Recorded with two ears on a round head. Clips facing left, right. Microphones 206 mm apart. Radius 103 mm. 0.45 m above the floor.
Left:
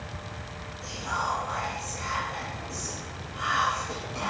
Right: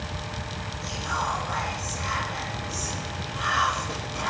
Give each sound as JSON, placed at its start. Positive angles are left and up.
{"t": 0.8, "sound": "whispering", "side_deg": -25, "distance_m": 9.5}